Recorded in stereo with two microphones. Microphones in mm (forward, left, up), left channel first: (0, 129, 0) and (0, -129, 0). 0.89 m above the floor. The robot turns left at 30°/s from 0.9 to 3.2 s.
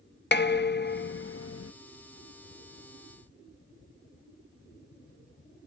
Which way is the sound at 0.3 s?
40° left (ahead or behind).